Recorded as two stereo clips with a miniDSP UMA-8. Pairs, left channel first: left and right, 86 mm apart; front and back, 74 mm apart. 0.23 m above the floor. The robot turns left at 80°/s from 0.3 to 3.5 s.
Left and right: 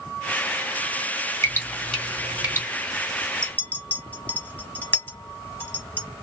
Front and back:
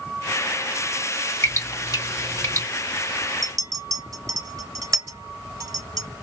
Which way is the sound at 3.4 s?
160° left.